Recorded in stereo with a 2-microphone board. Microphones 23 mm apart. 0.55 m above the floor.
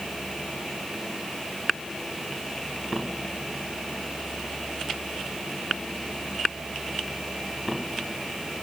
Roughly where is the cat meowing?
No cat meowing in this recording.